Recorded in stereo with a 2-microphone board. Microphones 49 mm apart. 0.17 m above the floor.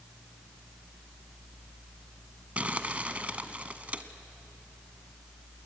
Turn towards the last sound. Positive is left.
turn(degrees=-30)  # may be behind; listen again after turning